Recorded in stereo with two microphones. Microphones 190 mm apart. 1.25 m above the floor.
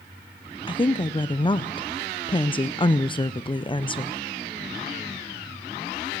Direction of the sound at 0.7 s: 25° left (ahead or behind).